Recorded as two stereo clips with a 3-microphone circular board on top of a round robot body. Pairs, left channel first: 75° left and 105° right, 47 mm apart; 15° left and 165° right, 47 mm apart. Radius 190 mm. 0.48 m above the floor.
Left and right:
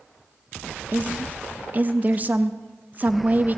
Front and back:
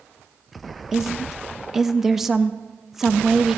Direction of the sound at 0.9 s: 85° right.